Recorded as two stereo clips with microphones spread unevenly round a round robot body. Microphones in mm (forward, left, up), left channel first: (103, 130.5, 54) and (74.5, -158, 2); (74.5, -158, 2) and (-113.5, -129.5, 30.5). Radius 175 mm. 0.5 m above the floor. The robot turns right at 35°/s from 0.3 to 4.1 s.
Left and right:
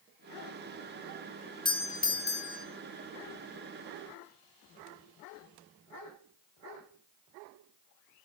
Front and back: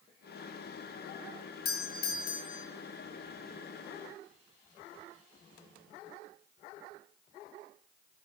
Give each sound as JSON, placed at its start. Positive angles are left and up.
{"t": 1.6, "sound": "a doorbell", "azimuth_deg": 5, "distance_m": 3.5}